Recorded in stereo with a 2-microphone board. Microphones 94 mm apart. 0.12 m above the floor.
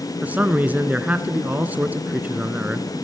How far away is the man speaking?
About 1.2 m.